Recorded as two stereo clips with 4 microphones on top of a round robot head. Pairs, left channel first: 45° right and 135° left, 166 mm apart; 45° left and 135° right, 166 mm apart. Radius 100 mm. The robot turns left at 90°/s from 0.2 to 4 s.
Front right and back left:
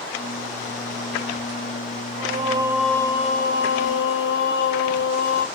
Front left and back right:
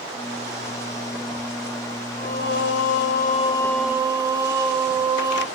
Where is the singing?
105° left, 0.7 m; by 5.5 s 60° right, 0.7 m.